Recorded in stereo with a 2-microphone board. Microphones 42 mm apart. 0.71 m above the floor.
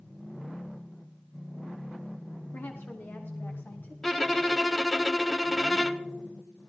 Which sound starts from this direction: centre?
A violin, at 4.0 s.